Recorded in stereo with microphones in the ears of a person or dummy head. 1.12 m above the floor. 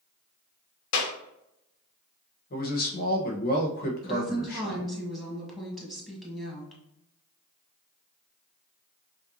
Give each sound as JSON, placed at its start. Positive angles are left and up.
{"t": 0.9, "sound": "a clap", "side_deg": 75, "distance_m": 1.2}
{"t": 2.5, "sound": "a man speaking", "side_deg": 45, "distance_m": 1.1}
{"t": 4.0, "sound": "a woman speaking", "side_deg": -5, "distance_m": 1.5}